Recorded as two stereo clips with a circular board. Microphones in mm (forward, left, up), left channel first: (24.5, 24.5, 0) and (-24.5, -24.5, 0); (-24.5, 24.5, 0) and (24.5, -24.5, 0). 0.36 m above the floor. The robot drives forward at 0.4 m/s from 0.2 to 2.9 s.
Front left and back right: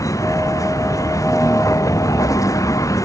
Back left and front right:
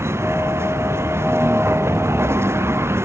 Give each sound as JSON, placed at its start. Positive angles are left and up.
{"t": 0.0, "sound": "a vehicle", "azimuth_deg": 5}